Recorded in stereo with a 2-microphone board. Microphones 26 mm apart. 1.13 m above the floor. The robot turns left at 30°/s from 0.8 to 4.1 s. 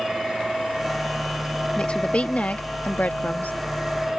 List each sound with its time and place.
1.8 s a woman speaking: 140° left; by 3.5 s 90° left